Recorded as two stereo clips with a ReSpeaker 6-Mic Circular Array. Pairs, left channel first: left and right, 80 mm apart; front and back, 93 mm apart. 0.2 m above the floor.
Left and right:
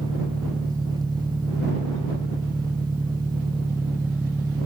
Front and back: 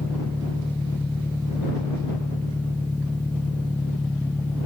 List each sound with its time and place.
0.0 s an engine running: 70° right